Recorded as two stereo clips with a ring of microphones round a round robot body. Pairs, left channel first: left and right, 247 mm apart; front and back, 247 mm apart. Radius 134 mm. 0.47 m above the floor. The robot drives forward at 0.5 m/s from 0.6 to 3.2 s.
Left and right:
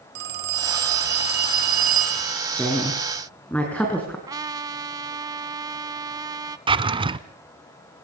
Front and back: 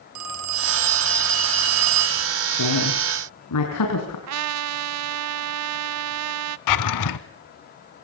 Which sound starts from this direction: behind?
A trumpet, at 4.3 s.